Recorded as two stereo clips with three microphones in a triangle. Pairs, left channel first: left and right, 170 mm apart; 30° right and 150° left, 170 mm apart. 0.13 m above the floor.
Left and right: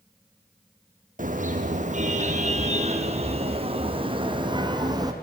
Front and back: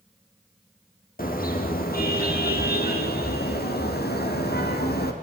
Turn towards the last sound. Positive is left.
turn(degrees=-25)